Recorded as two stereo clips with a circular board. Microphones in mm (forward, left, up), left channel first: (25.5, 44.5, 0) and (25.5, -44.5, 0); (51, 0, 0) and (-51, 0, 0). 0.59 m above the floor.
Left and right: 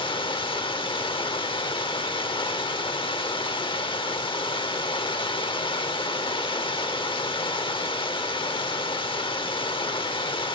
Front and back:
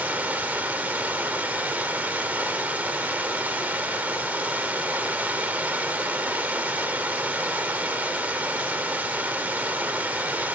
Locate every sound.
0.0 s running water: 105° left, 0.7 m